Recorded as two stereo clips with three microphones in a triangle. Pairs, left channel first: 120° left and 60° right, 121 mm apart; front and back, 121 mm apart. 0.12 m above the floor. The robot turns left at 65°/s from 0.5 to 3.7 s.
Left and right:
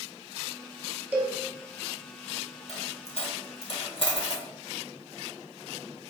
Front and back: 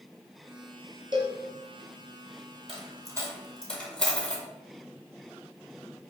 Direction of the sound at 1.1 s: 130° right.